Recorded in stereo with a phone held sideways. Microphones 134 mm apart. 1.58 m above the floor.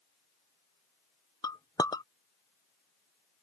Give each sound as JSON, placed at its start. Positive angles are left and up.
{"t": 1.4, "sound": "a clink", "side_deg": 30}